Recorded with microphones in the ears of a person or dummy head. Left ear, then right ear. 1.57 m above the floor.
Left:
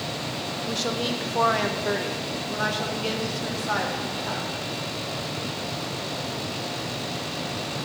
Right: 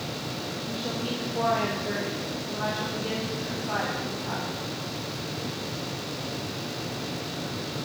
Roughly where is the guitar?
I don't hear a guitar.